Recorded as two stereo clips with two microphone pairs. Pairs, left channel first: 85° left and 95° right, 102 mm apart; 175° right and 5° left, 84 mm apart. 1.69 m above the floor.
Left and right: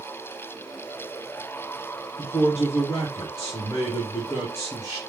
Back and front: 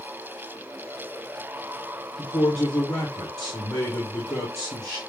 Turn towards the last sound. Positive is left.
turn(degrees=140)